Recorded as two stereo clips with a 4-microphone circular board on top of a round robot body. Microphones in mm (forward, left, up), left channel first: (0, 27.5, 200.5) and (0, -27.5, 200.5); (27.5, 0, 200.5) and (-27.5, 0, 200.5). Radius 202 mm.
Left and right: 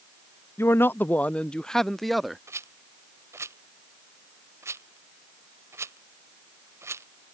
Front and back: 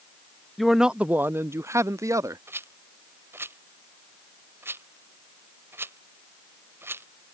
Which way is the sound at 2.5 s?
130° right.